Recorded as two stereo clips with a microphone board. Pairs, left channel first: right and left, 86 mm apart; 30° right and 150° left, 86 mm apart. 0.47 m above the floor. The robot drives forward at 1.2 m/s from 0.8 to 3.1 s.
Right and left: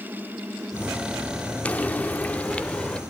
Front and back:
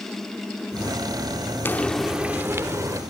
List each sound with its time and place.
1.6 s frying: 40° right, 0.9 m; by 3.0 s 170° right, 1.6 m